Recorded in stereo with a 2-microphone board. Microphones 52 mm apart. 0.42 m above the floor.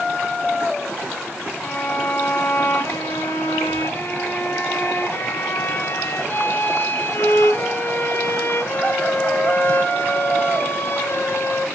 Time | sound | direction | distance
1.6 | a violin | 50° left (ahead or behind) | 0.8 m